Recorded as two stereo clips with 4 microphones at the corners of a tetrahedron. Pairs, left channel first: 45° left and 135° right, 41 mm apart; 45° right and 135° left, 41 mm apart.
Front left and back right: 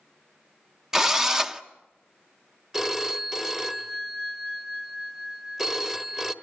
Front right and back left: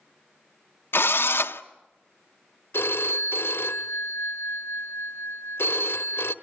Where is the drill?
60° right, 0.7 m.